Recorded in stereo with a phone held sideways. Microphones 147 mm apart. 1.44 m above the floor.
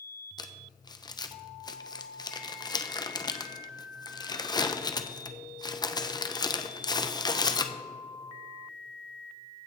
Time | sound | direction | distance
0.4 | crumpling | 30° left (ahead or behind) | 0.7 m